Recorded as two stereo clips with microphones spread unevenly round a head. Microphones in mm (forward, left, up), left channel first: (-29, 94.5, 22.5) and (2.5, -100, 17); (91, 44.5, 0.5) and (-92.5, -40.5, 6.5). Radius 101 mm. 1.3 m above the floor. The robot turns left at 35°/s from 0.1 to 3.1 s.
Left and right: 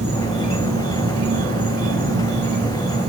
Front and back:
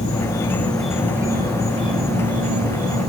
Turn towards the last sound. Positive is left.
turn(degrees=-145)